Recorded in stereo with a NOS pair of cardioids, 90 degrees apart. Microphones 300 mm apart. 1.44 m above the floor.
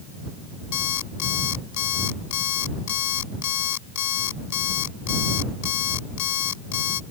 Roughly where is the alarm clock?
Left.